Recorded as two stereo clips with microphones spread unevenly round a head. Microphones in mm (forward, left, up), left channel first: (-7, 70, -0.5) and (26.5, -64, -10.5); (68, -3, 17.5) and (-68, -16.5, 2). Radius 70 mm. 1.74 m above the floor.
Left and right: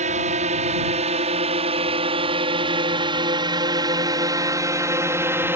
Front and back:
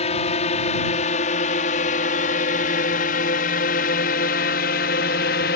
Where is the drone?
35° right; by 5.6 s straight ahead.